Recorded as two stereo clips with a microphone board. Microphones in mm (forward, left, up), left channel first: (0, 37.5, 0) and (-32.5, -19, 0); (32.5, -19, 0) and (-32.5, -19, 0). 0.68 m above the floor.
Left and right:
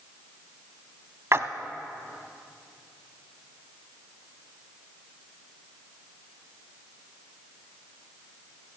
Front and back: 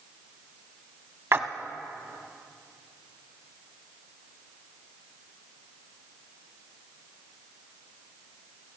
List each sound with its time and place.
1.3 s a splash: 150° right, 0.7 m